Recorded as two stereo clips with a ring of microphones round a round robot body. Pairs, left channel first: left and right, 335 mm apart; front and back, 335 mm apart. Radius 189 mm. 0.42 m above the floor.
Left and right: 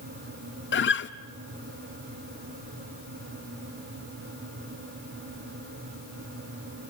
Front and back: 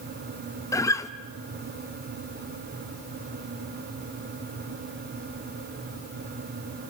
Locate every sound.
0.7 s a guitar: 75° left, 1.0 m